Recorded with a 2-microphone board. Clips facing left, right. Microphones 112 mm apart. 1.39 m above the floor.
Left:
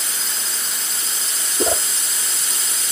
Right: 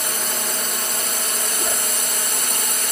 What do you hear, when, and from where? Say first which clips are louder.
0.0 s a drone: right 6 dB; 60° right (ahead or behind)
1.6 s a whoosh: left 10 dB; 35° left (ahead or behind)